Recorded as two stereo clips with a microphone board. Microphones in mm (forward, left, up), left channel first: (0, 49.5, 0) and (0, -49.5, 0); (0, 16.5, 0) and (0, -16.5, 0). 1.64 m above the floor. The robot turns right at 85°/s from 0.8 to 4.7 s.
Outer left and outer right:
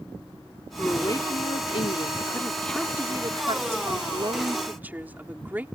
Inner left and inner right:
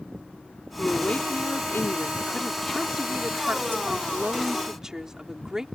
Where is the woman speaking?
10° left; by 5.7 s 15° right.